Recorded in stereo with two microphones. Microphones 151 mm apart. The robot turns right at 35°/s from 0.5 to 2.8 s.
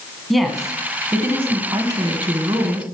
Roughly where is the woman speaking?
Behind.